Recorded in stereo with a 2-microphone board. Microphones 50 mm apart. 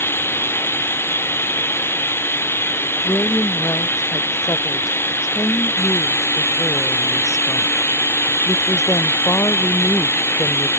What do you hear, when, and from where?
0.0 s running water: 50° left (ahead or behind)
3.0 s a woman speaking: 80° left